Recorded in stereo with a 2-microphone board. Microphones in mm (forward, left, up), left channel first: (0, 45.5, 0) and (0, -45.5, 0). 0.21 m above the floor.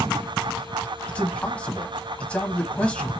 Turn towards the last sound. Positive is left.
turn(degrees=15)  # may be behind; listen again after turning